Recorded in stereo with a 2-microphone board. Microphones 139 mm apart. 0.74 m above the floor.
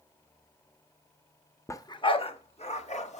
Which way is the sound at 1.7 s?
20° left (ahead or behind).